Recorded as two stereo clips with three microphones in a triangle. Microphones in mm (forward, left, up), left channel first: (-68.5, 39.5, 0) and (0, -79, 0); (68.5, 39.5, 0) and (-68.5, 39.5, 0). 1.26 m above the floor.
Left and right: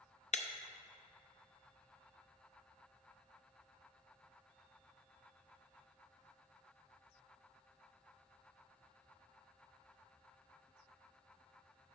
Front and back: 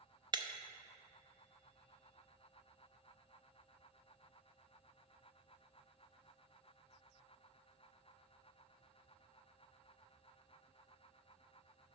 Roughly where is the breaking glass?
Behind left.